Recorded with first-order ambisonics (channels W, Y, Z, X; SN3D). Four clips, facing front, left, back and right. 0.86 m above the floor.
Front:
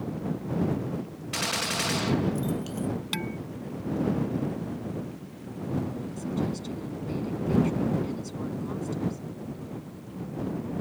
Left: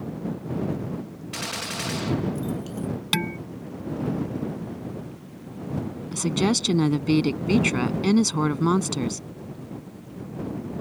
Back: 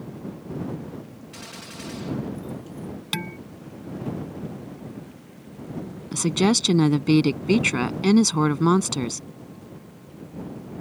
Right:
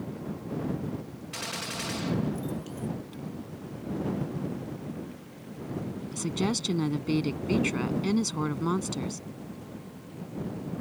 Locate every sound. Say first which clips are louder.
1.3 s a gunshot: left 4 dB, front 12 dB; 20° left
3.1 s dishes clattering: left 14 dB, back 2 dB; 105° left
6.1 s a woman speaking: left 7 dB, back 14 dB; 155° left